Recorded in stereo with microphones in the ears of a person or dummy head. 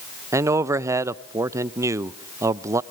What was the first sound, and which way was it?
A man speaking, 20° right (ahead or behind).